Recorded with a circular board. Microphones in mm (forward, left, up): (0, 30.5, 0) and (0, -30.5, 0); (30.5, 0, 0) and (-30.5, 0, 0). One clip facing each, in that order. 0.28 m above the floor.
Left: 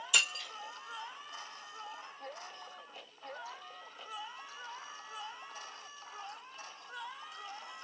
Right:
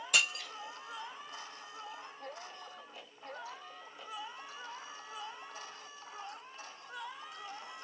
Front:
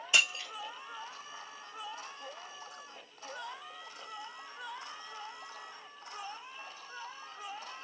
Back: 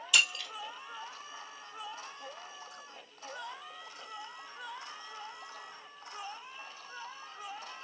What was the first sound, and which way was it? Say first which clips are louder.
Breaking glass: right 1 dB, even; 55° right.